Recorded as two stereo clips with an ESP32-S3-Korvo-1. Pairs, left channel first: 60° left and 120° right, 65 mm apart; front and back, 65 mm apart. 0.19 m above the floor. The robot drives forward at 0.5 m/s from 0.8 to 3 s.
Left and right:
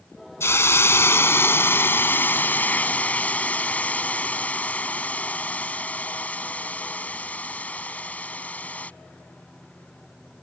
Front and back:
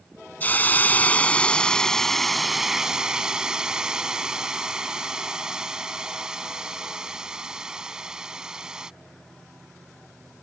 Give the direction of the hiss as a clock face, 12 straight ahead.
10 o'clock.